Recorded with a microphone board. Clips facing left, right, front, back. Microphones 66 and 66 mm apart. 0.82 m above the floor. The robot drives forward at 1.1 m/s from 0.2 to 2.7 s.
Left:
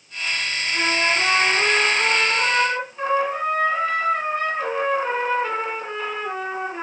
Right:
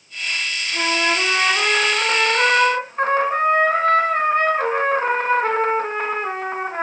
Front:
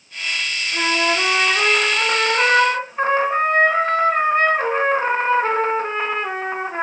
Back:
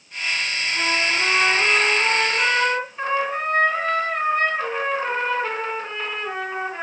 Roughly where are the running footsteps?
I don't hear running footsteps.